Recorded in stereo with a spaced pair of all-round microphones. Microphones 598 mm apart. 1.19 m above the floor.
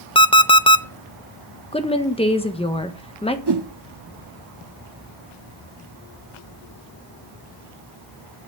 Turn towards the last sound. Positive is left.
turn(degrees=-45)  # may be behind; listen again after turning